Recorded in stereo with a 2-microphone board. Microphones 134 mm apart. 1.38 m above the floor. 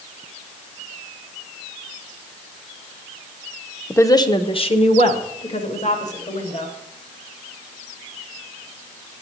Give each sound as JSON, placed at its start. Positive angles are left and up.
{"t": 3.9, "sound": "a woman speaking", "side_deg": 15, "distance_m": 0.8}